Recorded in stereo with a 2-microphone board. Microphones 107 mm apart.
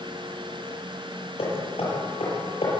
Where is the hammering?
70° left (ahead or behind), 8 m.